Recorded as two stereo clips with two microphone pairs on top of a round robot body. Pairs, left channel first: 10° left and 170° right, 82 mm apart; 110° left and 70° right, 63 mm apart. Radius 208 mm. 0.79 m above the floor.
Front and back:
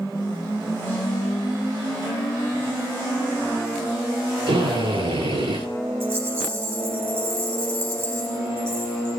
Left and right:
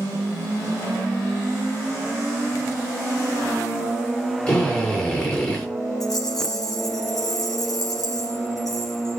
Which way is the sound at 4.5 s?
Straight behind.